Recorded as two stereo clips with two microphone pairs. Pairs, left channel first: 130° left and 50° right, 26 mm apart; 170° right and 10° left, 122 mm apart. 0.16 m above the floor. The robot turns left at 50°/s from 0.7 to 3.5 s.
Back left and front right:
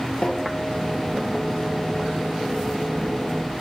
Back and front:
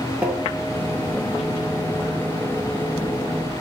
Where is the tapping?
85° left, 0.7 m.